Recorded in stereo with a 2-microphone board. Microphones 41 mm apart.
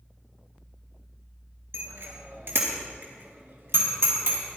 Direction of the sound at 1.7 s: 75° right (ahead or behind).